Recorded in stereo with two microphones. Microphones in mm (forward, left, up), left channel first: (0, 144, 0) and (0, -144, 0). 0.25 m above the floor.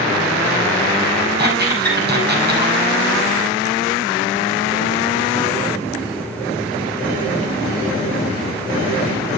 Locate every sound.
1.4 s a squeak: 35° right (ahead or behind), 7 m